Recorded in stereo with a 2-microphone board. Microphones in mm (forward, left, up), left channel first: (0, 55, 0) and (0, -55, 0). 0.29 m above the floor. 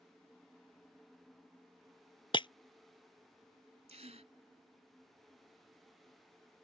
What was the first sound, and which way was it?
Breaking glass, 50° left (ahead or behind).